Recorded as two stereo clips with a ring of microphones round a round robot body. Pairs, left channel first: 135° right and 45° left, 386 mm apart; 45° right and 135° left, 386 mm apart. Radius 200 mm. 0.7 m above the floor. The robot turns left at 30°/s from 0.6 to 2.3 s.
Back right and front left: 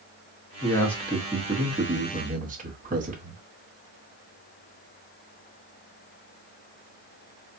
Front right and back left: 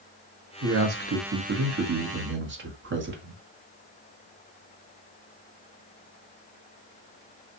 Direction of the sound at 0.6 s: 150° left.